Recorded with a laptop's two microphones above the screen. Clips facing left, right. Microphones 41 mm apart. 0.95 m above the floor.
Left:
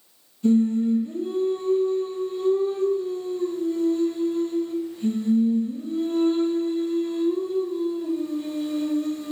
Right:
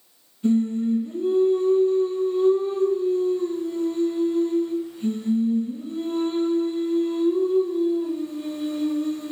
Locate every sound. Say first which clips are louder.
0.4 s singing: left 2 dB; 15° right (ahead or behind), 0.9 m